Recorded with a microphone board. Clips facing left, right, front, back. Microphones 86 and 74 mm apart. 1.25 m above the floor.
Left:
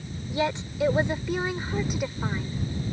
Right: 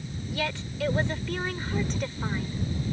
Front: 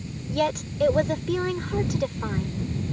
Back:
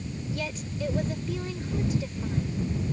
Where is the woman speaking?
20° left; by 2.6 s 5° left.